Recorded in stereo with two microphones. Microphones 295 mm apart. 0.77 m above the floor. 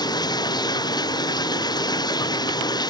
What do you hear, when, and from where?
0.0 s running water: 15° left (ahead or behind)